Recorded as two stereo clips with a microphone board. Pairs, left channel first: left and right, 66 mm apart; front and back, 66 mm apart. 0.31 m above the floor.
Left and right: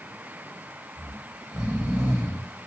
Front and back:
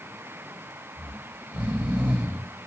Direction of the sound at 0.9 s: 135° right.